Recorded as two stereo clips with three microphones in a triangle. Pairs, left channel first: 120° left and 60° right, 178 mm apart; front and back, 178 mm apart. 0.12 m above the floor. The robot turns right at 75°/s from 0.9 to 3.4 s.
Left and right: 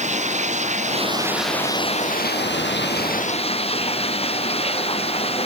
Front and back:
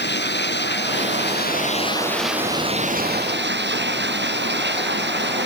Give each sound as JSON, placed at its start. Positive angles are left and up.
{"t": 0.0, "sound": "running water", "azimuth_deg": -10}